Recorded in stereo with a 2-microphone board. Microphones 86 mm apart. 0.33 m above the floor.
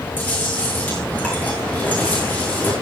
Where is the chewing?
20° left (ahead or behind), 9.5 m.